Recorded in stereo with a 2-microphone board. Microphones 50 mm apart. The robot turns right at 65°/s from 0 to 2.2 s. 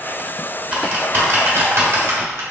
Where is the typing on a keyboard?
25° right (ahead or behind), 1.4 m; by 2.4 s 60° right (ahead or behind), 1.4 m.